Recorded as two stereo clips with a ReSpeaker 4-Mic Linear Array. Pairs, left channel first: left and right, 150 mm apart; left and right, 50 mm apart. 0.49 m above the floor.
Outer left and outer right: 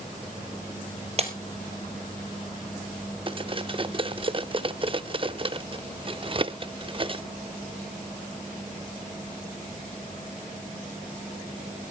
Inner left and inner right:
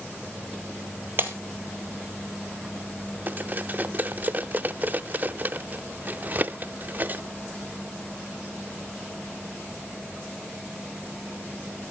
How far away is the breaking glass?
About 2 m.